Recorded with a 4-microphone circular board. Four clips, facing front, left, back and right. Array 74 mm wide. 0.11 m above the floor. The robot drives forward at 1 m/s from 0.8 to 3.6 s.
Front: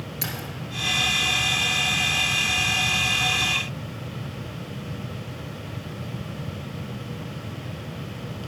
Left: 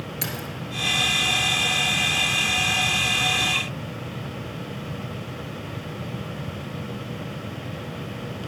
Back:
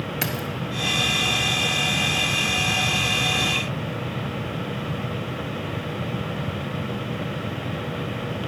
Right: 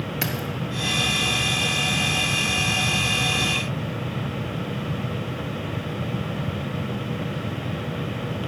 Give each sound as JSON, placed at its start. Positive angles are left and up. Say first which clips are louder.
{"t": 0.2, "sound": "keys jangling", "louder": "right 4 dB, back 4 dB", "azimuth_deg": -145, "distance_m": 1.3}